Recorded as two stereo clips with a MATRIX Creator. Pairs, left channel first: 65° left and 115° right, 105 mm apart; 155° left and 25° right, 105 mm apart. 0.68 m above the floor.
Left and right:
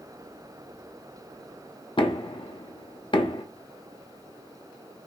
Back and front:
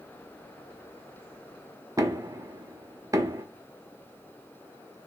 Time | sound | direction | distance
2.0 | knocking | 35° left | 0.5 m